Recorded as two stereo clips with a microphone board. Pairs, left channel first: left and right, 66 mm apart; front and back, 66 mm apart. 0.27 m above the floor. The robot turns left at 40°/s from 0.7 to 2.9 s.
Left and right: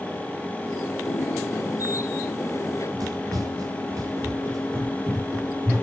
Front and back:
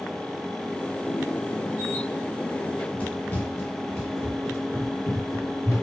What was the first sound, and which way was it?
Running footsteps, 55° right.